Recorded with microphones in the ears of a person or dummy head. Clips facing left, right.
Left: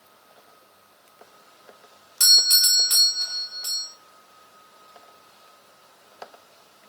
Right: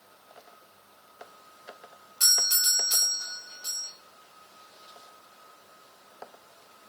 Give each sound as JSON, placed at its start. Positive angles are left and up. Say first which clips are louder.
{"t": 2.2, "sound": "a doorbell", "louder": "left 1 dB", "side_deg": 65, "distance_m": 5.0}